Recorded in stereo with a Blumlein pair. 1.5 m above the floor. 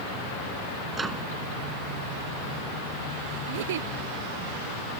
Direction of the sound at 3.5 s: 55° right.